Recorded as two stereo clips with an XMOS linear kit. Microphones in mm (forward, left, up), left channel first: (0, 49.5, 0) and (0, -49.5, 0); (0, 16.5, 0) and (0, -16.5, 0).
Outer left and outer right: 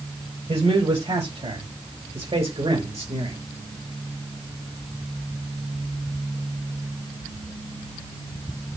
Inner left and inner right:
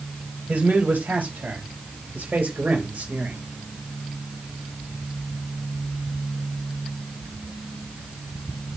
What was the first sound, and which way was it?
A man speaking, 75° right (ahead or behind).